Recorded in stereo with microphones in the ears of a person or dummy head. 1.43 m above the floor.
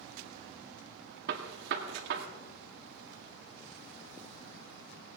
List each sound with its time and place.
1.3 s a gunshot: 65° right (ahead or behind), 1.9 m